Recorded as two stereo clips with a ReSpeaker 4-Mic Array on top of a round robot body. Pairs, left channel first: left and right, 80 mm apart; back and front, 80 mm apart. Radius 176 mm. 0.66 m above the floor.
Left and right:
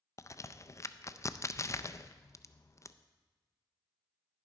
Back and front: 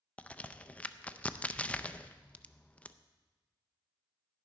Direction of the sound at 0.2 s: 115° left.